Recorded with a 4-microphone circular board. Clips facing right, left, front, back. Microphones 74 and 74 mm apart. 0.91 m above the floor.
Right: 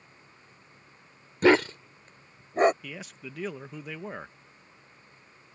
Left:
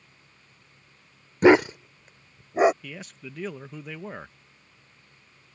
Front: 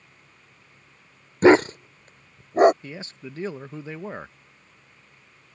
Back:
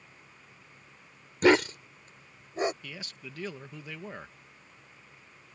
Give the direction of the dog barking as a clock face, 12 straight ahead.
11 o'clock.